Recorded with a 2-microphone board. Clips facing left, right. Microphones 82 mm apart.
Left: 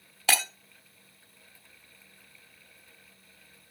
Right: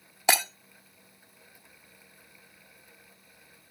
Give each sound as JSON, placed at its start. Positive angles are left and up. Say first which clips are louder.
{"t": 0.3, "sound": "breaking glass", "louder": "right 3 dB", "side_deg": -20, "distance_m": 0.7}